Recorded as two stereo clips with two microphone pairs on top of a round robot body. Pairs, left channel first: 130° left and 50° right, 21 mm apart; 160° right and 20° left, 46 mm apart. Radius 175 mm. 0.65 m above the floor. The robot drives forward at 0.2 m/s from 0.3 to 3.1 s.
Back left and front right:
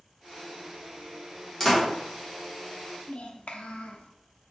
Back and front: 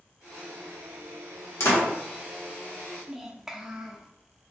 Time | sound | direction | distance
1.6 | a door slam | 165° right | 1.6 m
3.1 | a child speaking | 105° left | 0.7 m